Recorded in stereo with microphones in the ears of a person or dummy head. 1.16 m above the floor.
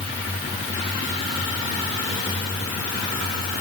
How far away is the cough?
I don't hear a cough.